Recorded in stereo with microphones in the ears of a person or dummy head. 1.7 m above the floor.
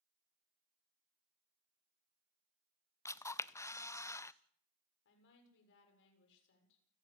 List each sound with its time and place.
3.0 s a camera shutter: 15° left (ahead or behind), 0.6 m
5.0 s a woman speaking: 65° left (ahead or behind), 7 m